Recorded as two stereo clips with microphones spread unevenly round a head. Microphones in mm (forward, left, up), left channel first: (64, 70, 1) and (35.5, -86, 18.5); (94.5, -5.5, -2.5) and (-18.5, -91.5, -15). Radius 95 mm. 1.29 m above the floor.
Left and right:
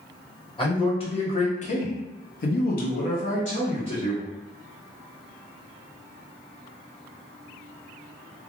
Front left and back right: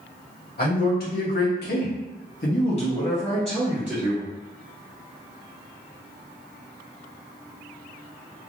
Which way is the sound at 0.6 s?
20° left.